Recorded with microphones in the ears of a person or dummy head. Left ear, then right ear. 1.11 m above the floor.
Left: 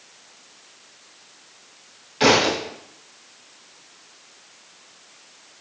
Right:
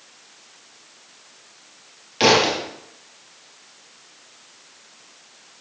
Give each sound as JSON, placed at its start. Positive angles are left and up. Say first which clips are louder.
{"t": 2.2, "sound": "a thud", "louder": "right 1 dB", "side_deg": -35, "distance_m": 1.8}